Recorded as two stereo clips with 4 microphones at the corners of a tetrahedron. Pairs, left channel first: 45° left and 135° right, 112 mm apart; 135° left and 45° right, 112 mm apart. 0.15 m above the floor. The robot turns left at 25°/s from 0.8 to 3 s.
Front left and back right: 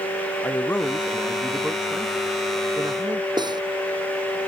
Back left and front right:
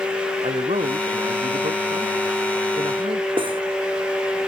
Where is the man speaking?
25° right; by 3.3 s 80° right.